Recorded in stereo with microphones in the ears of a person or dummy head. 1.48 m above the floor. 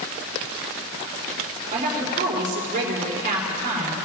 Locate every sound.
1.7 s a woman speaking: 50° right (ahead or behind), 4 m